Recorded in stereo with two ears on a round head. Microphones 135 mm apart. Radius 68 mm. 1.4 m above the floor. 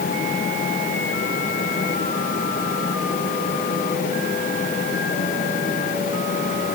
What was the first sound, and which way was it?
Only background noise.